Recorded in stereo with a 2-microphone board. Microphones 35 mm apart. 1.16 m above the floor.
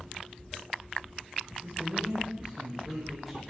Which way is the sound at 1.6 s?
35° right (ahead or behind).